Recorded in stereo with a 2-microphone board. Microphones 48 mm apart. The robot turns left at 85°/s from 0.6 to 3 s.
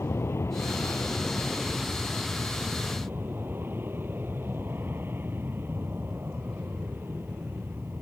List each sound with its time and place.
0.0 s an aircraft: 75° left; by 8.0 s 130° right